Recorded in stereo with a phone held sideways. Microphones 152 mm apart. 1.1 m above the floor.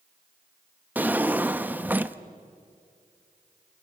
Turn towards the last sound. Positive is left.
turn(degrees=-10)  # may be behind; listen again after turning